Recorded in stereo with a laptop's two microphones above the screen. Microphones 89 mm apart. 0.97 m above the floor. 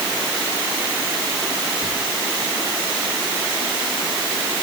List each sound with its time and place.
1.8 s whispering: 40° right (ahead or behind), 2 m